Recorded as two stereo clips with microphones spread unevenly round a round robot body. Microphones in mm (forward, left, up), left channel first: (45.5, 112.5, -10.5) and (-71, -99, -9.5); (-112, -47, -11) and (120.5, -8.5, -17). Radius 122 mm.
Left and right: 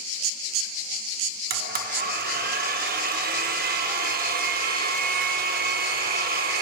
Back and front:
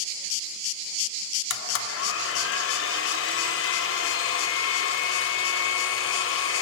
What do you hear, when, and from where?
1.5 s a blender: 160° right, 0.7 m